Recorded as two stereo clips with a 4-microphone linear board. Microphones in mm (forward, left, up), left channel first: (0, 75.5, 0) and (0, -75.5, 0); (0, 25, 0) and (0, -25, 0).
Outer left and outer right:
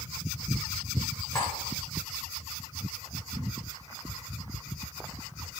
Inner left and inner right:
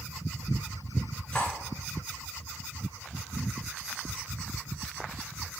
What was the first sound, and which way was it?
Cutlery clinking, 25° left (ahead or behind).